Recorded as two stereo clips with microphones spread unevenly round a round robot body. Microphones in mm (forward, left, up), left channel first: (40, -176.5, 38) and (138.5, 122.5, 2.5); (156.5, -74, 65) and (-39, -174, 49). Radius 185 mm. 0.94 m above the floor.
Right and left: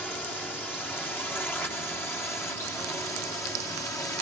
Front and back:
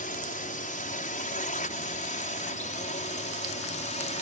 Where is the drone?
20° right; by 4.2 s 25° right.